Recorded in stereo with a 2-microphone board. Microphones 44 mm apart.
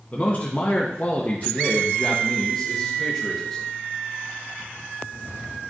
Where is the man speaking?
35° left (ahead or behind), 1.1 m; by 3.7 s 10° left (ahead or behind), 1.5 m.